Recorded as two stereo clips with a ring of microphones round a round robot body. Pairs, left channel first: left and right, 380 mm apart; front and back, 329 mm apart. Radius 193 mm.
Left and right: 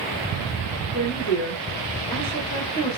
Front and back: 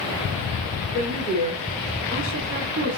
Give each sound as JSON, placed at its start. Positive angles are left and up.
{"t": 0.9, "sound": "a woman speaking", "azimuth_deg": 150, "distance_m": 1.5}